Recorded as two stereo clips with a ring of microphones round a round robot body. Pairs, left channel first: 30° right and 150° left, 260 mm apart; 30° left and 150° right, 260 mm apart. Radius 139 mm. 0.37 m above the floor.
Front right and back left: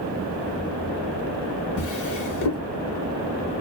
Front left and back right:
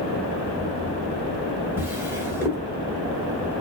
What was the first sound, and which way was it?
A drawer, 70° right.